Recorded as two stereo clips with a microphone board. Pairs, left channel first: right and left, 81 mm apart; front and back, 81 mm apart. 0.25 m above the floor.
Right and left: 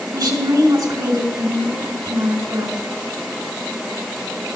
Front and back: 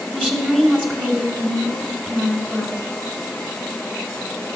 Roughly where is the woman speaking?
Left.